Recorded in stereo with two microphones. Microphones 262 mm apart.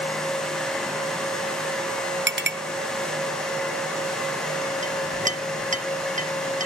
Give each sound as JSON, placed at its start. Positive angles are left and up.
{"t": 2.3, "sound": "a clink", "side_deg": -45, "distance_m": 0.8}
{"t": 4.8, "sound": "a clink", "side_deg": -30, "distance_m": 0.5}